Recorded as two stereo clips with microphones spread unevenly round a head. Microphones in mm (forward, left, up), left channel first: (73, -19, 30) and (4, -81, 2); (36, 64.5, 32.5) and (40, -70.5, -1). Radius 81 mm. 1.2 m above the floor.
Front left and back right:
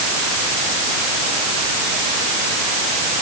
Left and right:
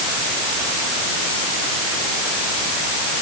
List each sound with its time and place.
Only background noise.